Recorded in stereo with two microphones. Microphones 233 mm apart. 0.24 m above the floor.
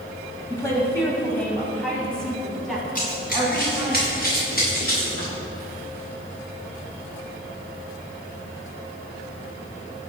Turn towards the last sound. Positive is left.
turn(degrees=40)  # may be behind; listen again after turning